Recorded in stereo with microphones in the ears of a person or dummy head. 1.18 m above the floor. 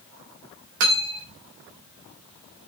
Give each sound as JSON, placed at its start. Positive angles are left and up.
{"t": 0.8, "sound": "cutlery clinking", "side_deg": -80, "distance_m": 1.8}